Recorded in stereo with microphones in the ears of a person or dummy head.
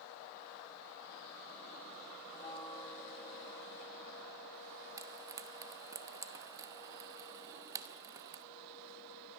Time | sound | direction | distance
2.3 | a bell | 30° left (ahead or behind) | 6 m
5.0 | frying | 20° right (ahead or behind) | 1.0 m